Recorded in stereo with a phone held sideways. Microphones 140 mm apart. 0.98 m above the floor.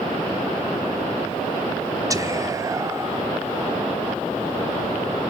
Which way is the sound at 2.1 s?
25° right (ahead or behind).